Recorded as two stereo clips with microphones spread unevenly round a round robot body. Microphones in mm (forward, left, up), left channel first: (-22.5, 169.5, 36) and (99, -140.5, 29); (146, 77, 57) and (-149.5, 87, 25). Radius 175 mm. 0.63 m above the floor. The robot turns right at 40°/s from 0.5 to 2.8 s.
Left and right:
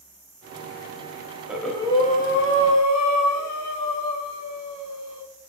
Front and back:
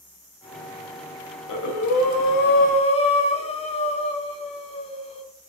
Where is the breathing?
15° left, 1.7 m; by 5.2 s 70° left, 1.7 m.